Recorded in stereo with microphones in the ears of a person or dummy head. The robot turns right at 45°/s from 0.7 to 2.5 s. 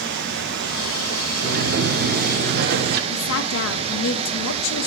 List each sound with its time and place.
0.0 s running water: 115° right, 0.9 m; by 4.9 s 35° right, 0.9 m
1.4 s a sliding door: 120° right, 0.8 m; by 3.0 s 70° right, 0.8 m
3.1 s a woman speaking: 80° left, 1.0 m